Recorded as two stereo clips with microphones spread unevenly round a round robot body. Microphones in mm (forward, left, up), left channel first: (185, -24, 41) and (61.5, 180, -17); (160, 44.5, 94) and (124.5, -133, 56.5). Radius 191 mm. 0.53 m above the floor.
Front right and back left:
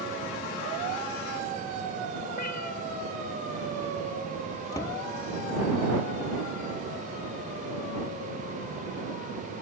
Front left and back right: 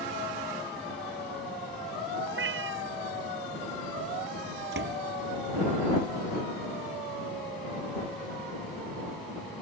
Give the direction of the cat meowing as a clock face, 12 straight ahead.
4 o'clock.